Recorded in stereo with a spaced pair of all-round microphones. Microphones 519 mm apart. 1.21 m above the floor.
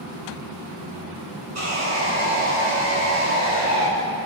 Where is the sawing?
80° right, 6 m.